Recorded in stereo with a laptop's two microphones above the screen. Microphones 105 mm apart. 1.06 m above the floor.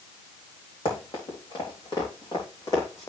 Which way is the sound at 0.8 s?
60° left (ahead or behind).